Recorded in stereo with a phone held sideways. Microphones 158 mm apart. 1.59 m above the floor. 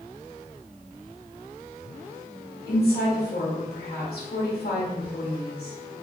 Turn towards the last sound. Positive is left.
turn(degrees=75)  # may be behind; listen again after turning